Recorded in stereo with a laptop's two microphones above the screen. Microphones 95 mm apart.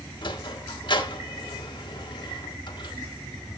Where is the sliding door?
55° left (ahead or behind), 1.6 m.